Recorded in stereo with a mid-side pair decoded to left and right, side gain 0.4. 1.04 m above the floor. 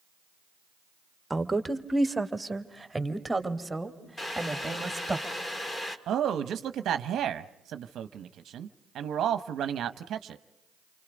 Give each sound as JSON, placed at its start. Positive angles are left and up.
{"t": 1.3, "sound": "a woman speaking", "azimuth_deg": -15, "distance_m": 1.5}
{"t": 4.2, "sound": "boiling", "azimuth_deg": 30, "distance_m": 2.0}
{"t": 6.1, "sound": "a man speaking", "azimuth_deg": -70, "distance_m": 0.8}